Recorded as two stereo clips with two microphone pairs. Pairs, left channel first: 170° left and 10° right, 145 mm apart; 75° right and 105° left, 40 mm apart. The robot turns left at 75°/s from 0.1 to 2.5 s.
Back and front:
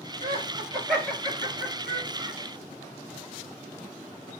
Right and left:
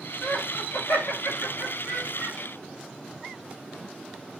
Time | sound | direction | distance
0.2 | laughter | 40° right | 6 m